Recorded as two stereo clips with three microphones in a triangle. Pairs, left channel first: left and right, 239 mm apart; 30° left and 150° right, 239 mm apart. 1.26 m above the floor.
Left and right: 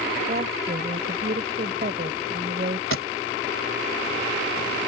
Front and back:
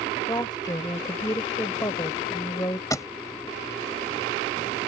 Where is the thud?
105° left.